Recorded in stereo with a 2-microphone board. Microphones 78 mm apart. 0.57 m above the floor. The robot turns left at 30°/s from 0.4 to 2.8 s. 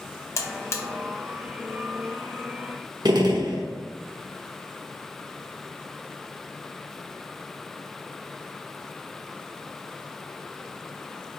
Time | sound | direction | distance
0.4 | a buzzer | 40° left (ahead or behind) | 0.5 m
3.0 | a gunshot | 60° right (ahead or behind) | 0.7 m